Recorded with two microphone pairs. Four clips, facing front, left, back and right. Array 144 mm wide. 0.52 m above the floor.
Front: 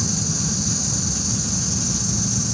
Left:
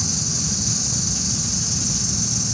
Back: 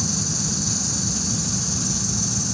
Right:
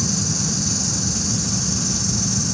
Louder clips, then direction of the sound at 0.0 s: Right 5 dB, front 2 dB; 90° right.